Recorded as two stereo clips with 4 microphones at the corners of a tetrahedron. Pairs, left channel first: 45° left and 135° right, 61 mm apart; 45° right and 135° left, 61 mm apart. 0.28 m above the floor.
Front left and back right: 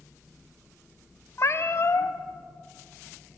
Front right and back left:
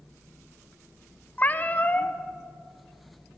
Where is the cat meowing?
10° left, 1.0 m.